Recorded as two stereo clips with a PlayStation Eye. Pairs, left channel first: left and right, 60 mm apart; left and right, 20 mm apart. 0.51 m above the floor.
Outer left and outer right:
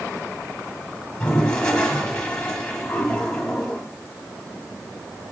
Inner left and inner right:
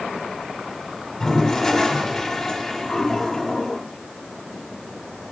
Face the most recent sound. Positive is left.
turn(degrees=15)  # may be behind; listen again after turning